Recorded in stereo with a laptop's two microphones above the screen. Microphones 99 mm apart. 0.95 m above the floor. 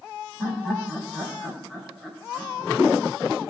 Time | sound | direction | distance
0.4 | laughter | 10° left (ahead or behind) | 3.5 m